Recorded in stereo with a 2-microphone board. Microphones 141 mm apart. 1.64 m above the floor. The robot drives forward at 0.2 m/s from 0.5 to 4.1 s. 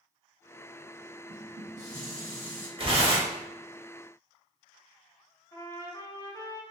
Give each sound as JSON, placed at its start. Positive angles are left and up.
{"t": 1.3, "sound": "dishes clattering", "side_deg": -60, "distance_m": 1.4}
{"t": 2.8, "sound": "tearing paper", "side_deg": -40, "distance_m": 0.9}
{"t": 5.5, "sound": "a trumpet", "side_deg": 20, "distance_m": 0.7}